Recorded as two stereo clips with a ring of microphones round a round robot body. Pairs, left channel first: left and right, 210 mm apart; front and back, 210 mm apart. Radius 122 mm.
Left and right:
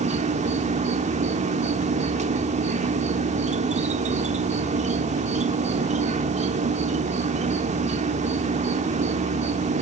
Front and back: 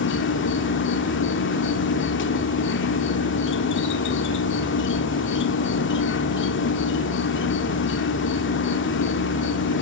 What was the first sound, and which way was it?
An insect, 30° right.